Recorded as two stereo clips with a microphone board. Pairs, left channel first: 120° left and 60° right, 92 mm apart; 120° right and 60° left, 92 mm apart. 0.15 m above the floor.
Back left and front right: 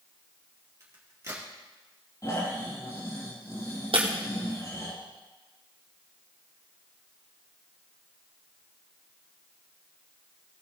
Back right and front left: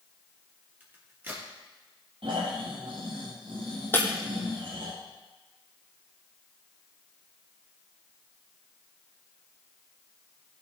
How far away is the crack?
About 3.5 m.